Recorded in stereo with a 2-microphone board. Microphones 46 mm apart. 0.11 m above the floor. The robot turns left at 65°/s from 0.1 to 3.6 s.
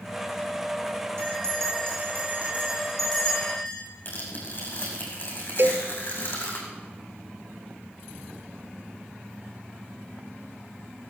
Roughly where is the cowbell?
Right.